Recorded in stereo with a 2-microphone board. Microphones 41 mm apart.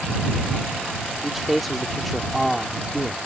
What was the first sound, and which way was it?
A man speaking, centre (ahead or behind).